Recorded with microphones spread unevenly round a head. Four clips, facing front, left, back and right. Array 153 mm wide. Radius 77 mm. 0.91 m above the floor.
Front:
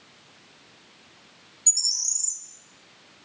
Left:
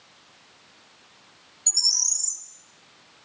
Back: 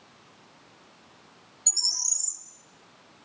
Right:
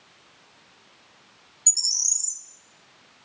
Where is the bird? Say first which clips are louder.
Left 8 dB, back 6 dB; 145° left, 0.8 m.